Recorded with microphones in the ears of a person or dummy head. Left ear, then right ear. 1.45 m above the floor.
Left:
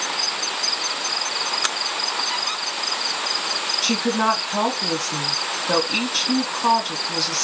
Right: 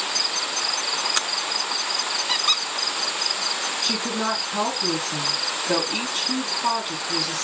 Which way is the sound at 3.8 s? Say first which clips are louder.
Left 4 dB; 85° left.